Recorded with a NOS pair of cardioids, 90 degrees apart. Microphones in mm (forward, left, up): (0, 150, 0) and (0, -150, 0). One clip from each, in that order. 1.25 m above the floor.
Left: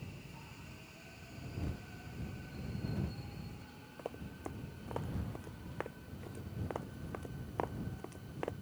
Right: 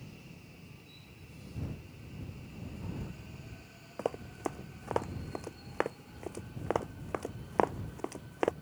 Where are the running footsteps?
70° right.